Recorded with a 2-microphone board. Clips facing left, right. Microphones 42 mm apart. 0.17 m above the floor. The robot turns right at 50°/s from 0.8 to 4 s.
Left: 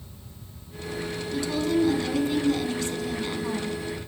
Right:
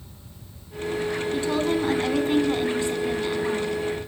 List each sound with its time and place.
1.3 s a woman speaking: 115° right, 1.2 m; by 3.8 s 5° left, 1.2 m